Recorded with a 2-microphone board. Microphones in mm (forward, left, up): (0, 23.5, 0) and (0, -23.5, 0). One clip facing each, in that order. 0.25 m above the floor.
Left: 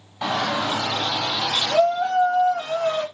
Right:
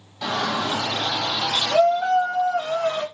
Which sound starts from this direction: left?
A shout, at 0.2 s.